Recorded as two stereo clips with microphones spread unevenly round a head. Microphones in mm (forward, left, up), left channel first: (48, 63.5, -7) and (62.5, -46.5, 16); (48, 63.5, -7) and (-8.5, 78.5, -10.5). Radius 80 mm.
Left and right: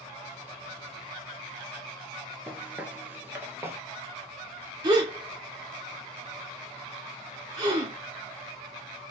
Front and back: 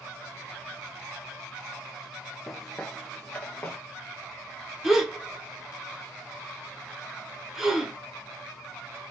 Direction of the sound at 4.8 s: 105° right.